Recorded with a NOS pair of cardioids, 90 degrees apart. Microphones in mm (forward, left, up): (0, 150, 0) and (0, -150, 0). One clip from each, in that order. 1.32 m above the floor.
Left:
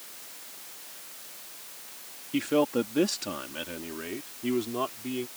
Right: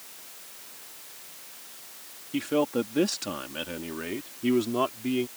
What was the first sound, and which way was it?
A man speaking, 5° left.